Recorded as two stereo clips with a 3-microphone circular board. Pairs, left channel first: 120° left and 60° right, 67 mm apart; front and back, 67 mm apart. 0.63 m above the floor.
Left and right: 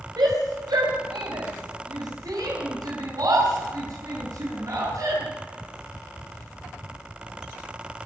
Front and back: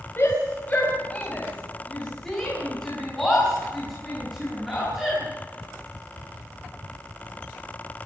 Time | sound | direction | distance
0.2 | a shout | 55° right | 3.5 m